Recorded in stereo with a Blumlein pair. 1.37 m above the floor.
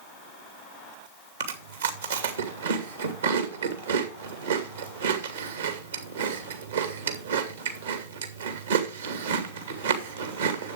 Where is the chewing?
65° right, 2.5 m.